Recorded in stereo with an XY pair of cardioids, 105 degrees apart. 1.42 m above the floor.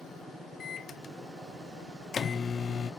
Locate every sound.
0.6 s a microwave: 45° left, 0.8 m